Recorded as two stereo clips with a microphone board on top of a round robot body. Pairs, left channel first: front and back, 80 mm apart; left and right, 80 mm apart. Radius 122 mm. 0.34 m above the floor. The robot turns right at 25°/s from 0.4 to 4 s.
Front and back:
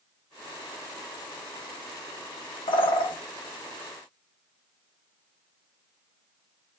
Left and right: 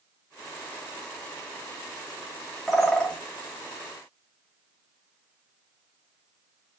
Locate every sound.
2.7 s a bird: straight ahead, 0.5 m; by 3.2 s 10° left, 0.5 m